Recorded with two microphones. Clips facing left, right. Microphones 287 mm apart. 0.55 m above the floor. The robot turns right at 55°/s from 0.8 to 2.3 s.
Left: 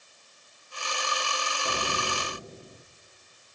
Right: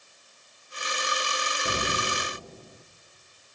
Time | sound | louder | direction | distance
1.6 | an explosion | right 2 dB | 20° right | 0.6 m